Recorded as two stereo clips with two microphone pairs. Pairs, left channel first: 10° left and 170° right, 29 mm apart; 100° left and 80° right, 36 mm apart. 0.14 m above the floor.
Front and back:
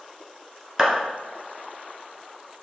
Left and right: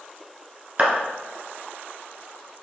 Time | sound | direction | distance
0.8 | a clap | 105° right | 1.1 m